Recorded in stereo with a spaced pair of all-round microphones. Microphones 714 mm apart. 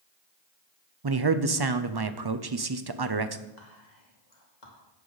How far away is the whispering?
About 2.5 m.